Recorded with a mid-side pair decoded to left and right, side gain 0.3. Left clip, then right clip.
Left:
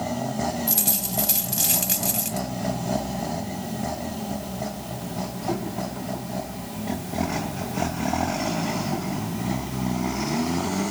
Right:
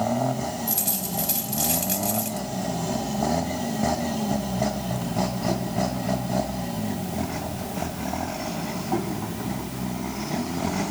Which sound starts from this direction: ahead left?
A dropped coin, at 0.7 s.